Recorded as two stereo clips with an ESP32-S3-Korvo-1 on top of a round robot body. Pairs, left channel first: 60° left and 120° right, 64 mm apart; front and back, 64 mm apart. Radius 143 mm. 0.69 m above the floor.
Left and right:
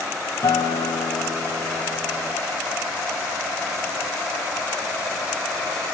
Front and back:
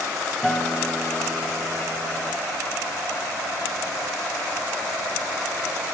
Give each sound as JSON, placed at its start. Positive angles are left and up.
{"t": 0.4, "sound": "a guitar", "azimuth_deg": 85, "distance_m": 2.0}